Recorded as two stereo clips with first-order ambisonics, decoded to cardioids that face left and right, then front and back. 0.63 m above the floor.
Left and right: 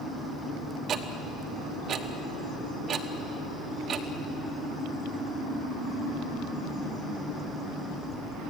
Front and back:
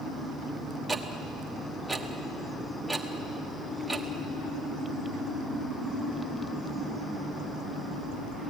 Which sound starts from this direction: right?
Ticking, at 0.9 s.